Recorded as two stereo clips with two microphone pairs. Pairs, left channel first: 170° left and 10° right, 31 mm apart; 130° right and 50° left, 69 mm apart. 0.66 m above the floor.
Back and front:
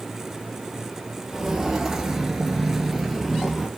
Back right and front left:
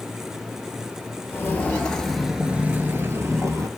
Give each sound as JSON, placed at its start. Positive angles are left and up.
{"t": 1.3, "sound": "footsteps", "azimuth_deg": -80, "distance_m": 0.9}